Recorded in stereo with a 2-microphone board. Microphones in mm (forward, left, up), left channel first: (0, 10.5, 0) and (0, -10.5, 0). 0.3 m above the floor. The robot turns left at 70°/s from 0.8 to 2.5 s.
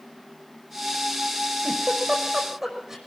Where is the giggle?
80° right, 5 m; by 3.0 s 20° right (ahead or behind), 5 m.